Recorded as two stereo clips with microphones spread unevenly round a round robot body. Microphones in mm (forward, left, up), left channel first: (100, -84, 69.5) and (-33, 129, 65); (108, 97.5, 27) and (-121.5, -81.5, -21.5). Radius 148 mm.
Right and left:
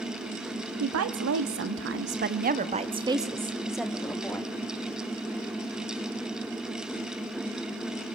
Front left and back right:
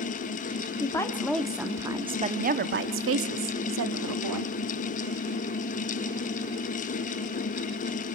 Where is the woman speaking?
120° left, 1.3 m; by 4.5 s 140° right, 1.5 m.